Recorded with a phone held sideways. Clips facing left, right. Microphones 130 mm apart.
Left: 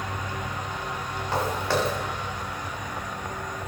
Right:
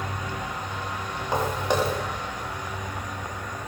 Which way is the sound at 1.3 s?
15° right (ahead or behind).